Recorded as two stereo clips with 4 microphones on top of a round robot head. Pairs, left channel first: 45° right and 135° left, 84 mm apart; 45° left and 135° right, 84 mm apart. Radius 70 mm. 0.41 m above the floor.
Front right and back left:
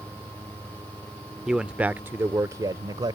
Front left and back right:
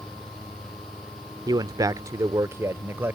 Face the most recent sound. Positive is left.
turn(degrees=160)